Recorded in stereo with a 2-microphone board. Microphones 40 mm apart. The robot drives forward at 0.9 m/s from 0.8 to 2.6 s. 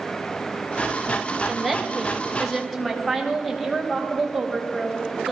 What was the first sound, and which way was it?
A woman speaking, centre (ahead or behind).